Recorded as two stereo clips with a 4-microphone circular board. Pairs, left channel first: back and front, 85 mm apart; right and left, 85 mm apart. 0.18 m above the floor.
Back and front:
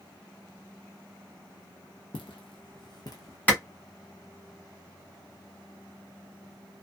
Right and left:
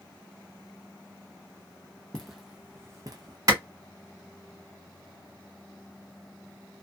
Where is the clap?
115° left, 1.4 m.